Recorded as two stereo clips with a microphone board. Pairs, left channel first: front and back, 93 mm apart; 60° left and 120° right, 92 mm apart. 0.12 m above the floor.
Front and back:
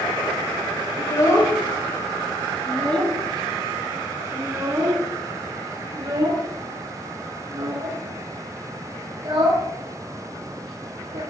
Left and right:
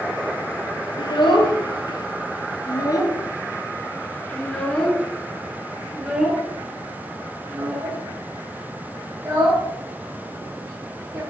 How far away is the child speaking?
About 2 m.